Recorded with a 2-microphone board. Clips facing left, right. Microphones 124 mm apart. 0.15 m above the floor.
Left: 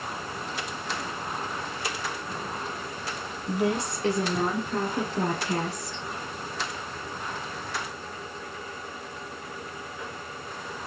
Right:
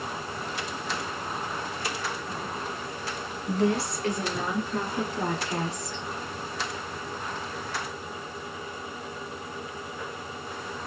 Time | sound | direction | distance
3.5 | a woman speaking | 5° left (ahead or behind) | 1.1 m